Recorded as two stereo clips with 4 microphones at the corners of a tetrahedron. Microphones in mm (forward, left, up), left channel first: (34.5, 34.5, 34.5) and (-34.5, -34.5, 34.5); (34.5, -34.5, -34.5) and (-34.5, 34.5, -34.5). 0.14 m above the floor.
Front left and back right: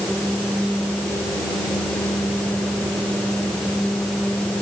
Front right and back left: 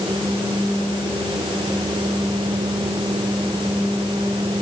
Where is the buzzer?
I don't hear a buzzer.